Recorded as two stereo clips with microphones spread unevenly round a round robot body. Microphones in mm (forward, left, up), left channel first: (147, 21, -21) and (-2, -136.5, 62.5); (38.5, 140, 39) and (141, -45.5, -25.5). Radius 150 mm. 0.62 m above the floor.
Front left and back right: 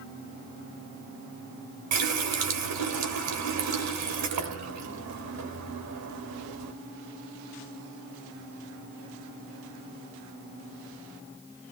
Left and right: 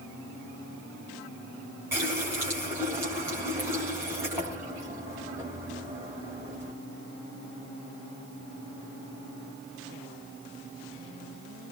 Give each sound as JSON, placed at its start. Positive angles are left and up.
{"t": 1.9, "sound": "a running tap", "azimuth_deg": -140, "distance_m": 2.0}